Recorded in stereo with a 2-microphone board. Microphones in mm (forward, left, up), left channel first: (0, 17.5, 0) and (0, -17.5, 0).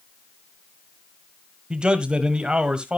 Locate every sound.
1.7 s a man speaking: 25° right (ahead or behind), 1.1 m